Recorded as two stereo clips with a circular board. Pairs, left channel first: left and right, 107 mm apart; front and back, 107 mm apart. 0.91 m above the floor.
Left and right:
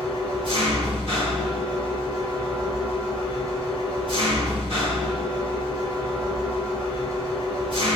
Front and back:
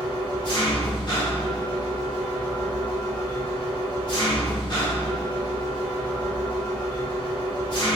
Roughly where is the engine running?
Ahead right.